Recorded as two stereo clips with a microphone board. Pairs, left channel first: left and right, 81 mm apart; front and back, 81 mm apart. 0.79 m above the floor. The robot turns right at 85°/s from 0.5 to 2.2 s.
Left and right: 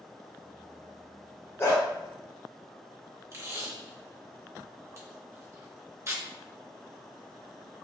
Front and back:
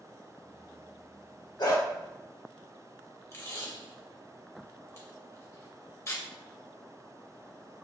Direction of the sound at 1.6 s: 30° left.